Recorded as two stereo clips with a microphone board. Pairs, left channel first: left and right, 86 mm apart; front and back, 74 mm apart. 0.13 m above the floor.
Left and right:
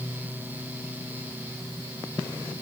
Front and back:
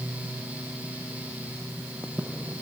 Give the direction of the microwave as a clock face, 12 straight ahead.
I don't hear a microwave.